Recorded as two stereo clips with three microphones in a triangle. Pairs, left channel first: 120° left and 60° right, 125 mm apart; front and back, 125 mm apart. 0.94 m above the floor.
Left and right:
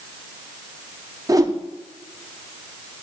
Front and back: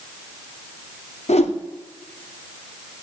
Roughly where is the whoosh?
Ahead.